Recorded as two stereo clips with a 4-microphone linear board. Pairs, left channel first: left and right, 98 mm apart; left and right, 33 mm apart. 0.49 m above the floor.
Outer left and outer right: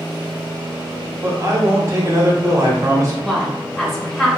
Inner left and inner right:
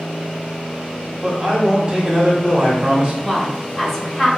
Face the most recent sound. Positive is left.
turn(degrees=5)  # may be behind; listen again after turning